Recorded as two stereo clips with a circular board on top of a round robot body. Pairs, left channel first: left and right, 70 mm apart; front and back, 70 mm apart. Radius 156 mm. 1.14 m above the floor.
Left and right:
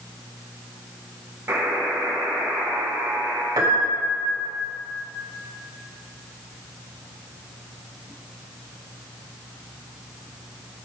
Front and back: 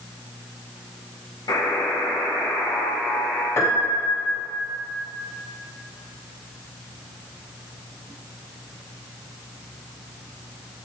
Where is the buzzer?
30° right, 0.9 m.